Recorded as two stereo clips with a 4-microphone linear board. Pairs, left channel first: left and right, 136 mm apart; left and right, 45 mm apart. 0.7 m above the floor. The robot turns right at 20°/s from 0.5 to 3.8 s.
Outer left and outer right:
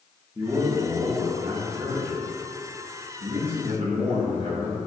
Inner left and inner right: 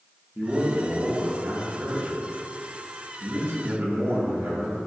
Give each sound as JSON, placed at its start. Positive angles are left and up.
{"t": 0.3, "sound": "a man speaking", "azimuth_deg": -150, "distance_m": 1.7}